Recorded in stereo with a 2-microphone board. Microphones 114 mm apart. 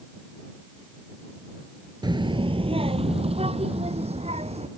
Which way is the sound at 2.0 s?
40° right (ahead or behind).